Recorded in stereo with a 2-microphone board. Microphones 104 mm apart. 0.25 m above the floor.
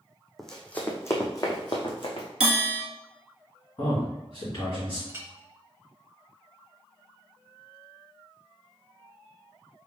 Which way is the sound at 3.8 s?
50° left (ahead or behind).